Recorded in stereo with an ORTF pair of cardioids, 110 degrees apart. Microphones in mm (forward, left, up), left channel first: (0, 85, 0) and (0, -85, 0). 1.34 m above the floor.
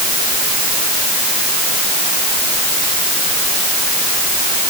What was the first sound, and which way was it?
Only background noise.